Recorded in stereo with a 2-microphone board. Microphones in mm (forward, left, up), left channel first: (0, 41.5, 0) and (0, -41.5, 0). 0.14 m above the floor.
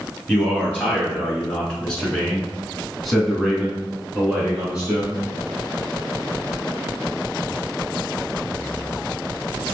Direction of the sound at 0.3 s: 10° left (ahead or behind).